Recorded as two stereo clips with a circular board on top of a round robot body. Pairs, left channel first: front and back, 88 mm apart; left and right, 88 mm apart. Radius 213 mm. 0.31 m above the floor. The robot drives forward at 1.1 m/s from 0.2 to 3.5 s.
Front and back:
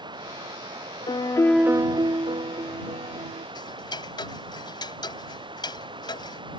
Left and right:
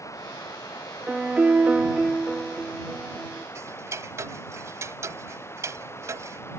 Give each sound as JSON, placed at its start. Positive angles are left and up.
{"t": 0.0, "sound": "running water", "azimuth_deg": 145}
{"t": 1.1, "sound": "a piano", "azimuth_deg": -10}
{"t": 3.5, "sound": "ticking", "azimuth_deg": -30}